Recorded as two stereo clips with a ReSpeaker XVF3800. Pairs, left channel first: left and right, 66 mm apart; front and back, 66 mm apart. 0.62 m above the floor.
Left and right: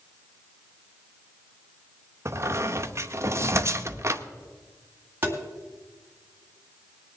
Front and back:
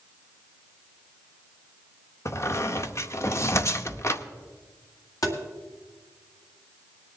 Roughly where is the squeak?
Ahead right.